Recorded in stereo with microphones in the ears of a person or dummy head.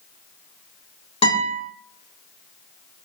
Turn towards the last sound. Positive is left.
turn(degrees=30)  # may be behind; listen again after turning